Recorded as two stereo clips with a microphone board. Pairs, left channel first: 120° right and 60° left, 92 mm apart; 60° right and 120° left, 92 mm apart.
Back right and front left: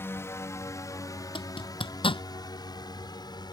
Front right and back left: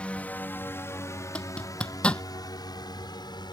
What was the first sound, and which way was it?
A drone, 120° right.